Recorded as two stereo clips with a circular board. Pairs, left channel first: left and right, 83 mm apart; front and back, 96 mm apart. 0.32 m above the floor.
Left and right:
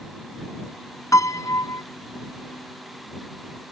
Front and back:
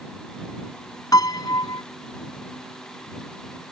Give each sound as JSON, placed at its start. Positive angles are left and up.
{"t": 1.1, "sound": "a piano", "azimuth_deg": 45}